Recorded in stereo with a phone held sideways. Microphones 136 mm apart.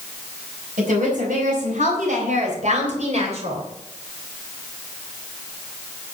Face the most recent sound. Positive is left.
turn(degrees=-55)  # may be behind; listen again after turning